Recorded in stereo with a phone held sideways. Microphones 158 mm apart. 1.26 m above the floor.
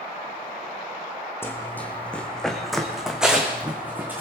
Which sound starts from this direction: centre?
Running footsteps, at 1.4 s.